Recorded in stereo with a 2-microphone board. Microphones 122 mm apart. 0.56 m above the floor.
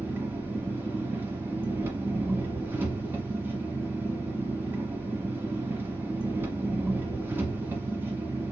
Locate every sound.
0.0 s an engine running: 15° right (ahead or behind), 1.2 m